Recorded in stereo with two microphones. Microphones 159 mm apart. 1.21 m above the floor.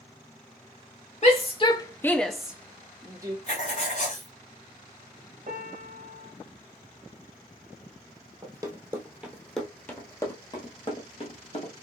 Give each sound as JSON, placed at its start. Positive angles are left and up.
{"t": 1.2, "sound": "a shout", "side_deg": 45, "distance_m": 0.7}
{"t": 3.5, "sound": "writing", "side_deg": 50, "distance_m": 2.5}
{"t": 5.5, "sound": "a piano", "side_deg": -50, "distance_m": 0.9}
{"t": 8.4, "sound": "running footsteps", "side_deg": -25, "distance_m": 1.3}